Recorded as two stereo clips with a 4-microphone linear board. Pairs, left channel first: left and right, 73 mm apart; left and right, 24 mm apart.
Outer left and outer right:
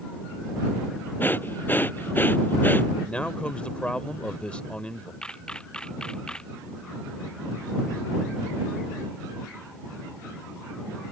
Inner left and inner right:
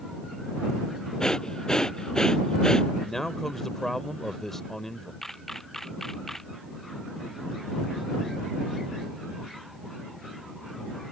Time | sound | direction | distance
1.2 | breathing | 25° left (ahead or behind) | ?
3.0 | a man speaking | 15° left (ahead or behind) | ?
5.2 | a camera shutter | 10° left (ahead or behind) | ?